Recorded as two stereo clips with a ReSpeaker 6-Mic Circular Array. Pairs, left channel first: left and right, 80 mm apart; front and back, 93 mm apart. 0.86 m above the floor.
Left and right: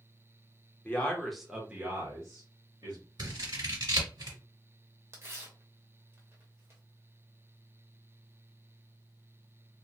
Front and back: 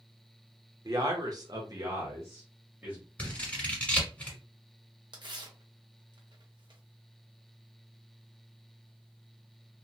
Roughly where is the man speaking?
Behind left.